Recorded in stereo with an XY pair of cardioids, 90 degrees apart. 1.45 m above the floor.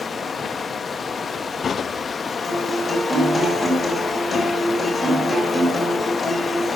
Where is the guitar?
15° left, 7.5 m.